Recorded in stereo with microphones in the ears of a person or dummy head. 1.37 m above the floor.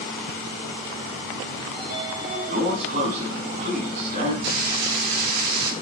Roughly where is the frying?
Right.